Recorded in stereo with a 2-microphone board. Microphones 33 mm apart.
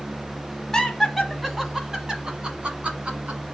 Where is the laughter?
10° left (ahead or behind), 1.2 m; by 3.4 s 45° right (ahead or behind), 1.6 m.